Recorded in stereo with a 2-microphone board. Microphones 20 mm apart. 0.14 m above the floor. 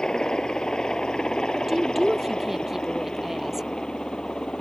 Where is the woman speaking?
15° right (ahead or behind).